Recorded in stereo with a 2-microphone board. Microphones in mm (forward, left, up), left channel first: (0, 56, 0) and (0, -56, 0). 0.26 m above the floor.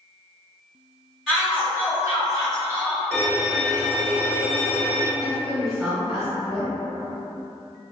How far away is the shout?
About 1.0 m.